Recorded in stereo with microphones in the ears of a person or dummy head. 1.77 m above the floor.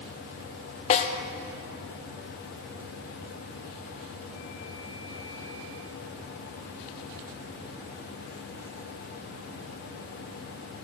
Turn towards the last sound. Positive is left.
turn(degrees=35)  # may be behind; listen again after turning